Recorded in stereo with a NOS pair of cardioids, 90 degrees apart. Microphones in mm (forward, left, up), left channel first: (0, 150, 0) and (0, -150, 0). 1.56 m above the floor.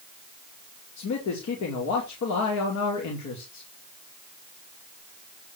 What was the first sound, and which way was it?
A man speaking, 65° left.